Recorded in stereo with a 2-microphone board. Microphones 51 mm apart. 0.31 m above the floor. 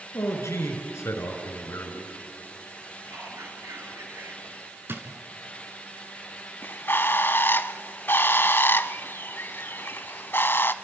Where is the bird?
50° left (ahead or behind), 0.8 m.